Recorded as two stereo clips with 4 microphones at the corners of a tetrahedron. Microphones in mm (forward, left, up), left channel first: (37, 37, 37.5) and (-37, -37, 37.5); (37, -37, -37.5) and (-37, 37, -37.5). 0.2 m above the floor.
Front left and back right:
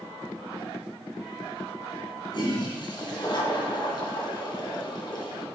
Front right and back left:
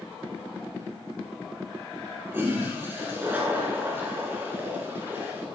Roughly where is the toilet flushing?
Left.